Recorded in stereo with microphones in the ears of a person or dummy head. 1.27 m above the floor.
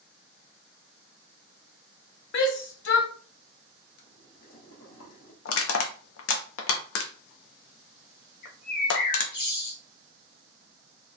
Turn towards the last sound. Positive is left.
turn(degrees=55)  # may be behind; listen again after turning